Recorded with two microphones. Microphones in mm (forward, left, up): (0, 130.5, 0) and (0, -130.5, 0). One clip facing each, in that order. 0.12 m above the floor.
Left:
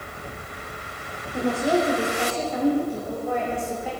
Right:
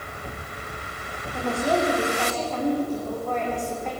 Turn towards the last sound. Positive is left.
turn(degrees=5)  # may be behind; listen again after turning